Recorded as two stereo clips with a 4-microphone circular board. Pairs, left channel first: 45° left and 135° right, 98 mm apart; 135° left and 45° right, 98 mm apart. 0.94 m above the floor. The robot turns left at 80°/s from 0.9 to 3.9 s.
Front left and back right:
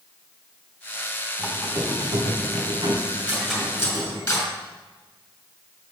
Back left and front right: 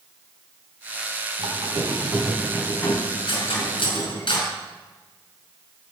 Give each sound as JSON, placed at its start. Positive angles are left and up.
{"t": 1.4, "sound": "a squeak", "azimuth_deg": -60, "distance_m": 3.5}
{"t": 3.3, "sound": "cutlery clinking", "azimuth_deg": 150, "distance_m": 4.0}